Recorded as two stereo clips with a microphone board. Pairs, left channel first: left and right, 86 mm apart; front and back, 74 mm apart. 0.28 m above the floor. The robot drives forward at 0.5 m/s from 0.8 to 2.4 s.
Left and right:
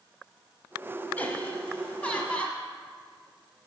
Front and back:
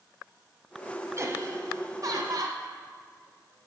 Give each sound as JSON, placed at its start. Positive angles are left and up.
{"t": 1.2, "sound": "laughter", "azimuth_deg": 150, "distance_m": 1.4}